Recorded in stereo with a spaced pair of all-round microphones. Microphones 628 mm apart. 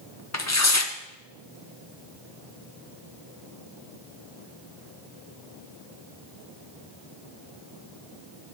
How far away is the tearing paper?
About 0.7 m.